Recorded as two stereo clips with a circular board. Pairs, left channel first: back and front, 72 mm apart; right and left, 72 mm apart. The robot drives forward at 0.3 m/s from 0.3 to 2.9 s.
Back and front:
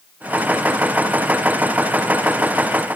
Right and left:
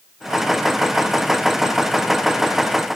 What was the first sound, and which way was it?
Only background noise.